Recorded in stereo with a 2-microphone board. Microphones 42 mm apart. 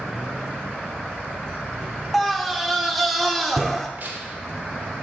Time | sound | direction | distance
2.1 | a scream | centre (ahead or behind) | 0.8 m
4.0 | tearing paper | 45° right (ahead or behind) | 1.2 m